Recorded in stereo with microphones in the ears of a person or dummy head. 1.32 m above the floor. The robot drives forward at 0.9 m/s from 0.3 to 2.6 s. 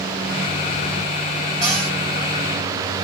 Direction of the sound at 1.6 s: 5° left (ahead or behind).